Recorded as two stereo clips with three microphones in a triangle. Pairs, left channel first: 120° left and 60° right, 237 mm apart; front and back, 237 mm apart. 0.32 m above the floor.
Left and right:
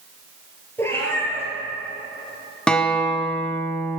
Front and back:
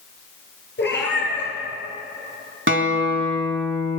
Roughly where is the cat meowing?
Ahead left.